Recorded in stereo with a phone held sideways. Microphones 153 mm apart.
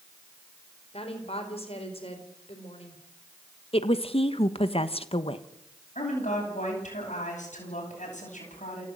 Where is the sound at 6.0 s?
50° left (ahead or behind), 9.5 m.